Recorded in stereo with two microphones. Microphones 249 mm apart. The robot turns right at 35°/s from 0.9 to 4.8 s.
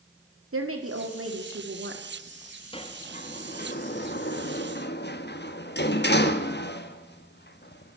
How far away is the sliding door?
About 1.1 m.